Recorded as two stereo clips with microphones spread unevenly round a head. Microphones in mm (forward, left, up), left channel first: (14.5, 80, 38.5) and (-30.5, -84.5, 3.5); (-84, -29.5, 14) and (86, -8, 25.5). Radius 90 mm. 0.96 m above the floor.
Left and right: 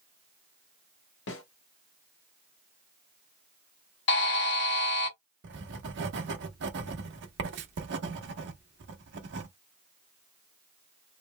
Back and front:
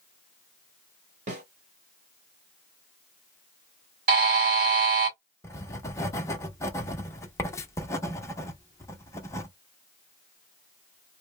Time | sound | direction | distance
1.3 | a snare drum | 55° left | 1.4 m
4.1 | a buzzer | 50° left | 1.5 m
5.4 | writing | 100° right | 0.9 m